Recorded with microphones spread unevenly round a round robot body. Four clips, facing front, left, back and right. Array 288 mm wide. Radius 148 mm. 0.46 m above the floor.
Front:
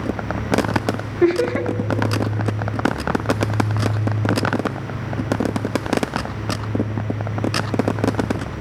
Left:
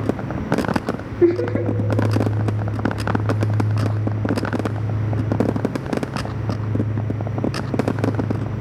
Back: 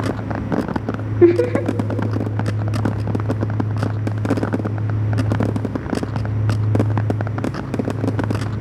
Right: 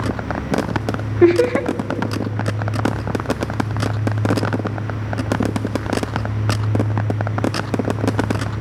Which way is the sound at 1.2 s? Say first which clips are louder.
Right 4 dB, back 4 dB; 165° right.